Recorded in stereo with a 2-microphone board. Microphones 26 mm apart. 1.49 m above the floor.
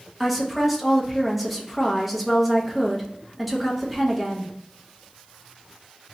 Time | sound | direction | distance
0.2 | a woman speaking | centre (ahead or behind) | 0.7 m